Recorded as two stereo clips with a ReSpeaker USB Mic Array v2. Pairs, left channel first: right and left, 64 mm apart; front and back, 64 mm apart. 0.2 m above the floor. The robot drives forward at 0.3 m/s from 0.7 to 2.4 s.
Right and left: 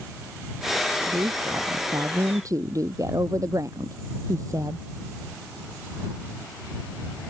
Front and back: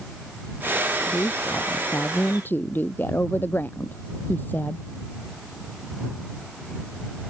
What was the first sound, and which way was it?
A woman speaking, 55° left.